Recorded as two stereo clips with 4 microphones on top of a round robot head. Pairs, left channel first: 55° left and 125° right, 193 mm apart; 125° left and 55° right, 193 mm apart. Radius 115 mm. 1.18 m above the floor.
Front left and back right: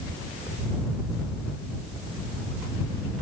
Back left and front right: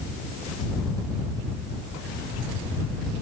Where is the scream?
I don't hear a scream.